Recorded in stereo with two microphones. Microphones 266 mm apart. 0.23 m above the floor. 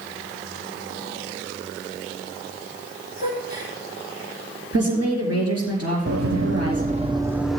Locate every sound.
3.2 s a gasp: 35° right (ahead or behind), 4.5 m
4.7 s a woman speaking: 65° right (ahead or behind), 3.5 m
6.1 s running footsteps: 65° right (ahead or behind), 0.7 m; by 7.6 s centre (ahead or behind), 0.7 m